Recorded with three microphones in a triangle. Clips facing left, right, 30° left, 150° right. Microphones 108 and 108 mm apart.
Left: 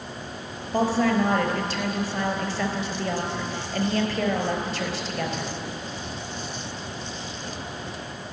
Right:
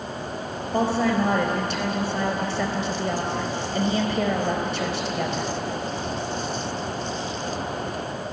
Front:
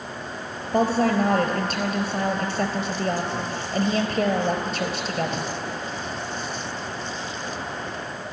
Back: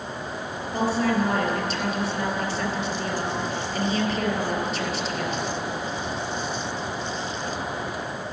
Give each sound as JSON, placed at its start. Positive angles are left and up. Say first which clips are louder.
{"t": 0.7, "sound": "a woman speaking", "louder": "even, front 3 dB", "azimuth_deg": -15, "distance_m": 3.5}